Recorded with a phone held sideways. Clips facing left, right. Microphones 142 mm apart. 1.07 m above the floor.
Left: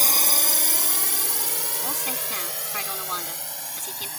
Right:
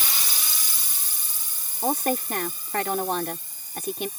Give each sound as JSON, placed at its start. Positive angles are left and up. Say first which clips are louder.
{"t": 0.0, "sound": "a drone", "louder": "left 7 dB", "side_deg": 45}
{"t": 1.8, "sound": "a woman speaking", "louder": "right 13 dB", "side_deg": -55}